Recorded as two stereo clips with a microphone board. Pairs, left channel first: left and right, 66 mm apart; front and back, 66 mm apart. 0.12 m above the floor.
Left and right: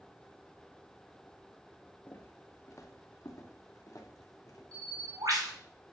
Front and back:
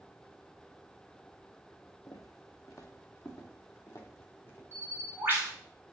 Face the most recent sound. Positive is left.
turn(degrees=-120)